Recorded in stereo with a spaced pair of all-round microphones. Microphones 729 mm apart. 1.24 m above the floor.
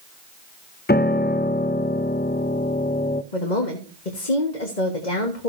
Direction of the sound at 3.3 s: 80° left.